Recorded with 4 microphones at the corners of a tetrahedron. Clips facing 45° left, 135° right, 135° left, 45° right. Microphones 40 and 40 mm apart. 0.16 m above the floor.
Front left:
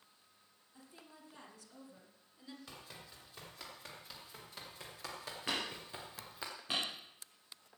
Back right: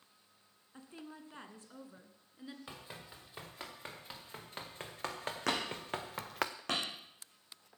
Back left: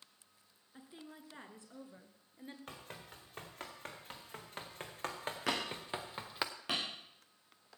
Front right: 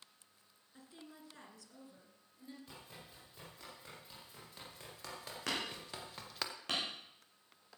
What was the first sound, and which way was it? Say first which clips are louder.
A woman speaking: back right 8 dB, back left 2 dB; 160° right.